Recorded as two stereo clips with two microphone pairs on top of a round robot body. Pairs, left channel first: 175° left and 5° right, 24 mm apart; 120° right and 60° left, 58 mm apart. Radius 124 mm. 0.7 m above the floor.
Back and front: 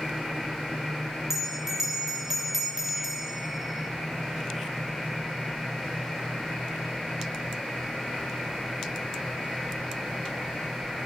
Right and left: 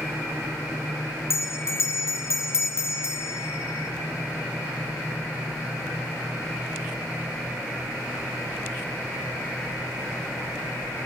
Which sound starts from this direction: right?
A bell, at 1.3 s.